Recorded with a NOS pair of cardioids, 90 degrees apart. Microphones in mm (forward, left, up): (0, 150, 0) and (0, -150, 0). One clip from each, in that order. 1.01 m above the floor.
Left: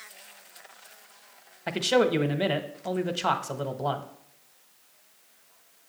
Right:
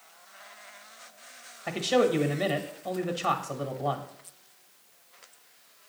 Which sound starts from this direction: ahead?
A man speaking, at 1.7 s.